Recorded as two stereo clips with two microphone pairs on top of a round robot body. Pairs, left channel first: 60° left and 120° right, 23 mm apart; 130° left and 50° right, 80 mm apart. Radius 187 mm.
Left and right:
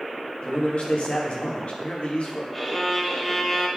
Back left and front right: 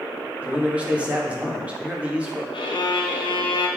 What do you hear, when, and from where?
0.4 s a man speaking: 20° left, 2 m
2.5 s a violin: 140° left, 1.1 m